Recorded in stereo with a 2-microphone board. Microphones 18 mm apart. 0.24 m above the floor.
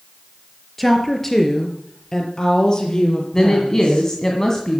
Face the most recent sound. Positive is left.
turn(degrees=20)  # may be behind; listen again after turning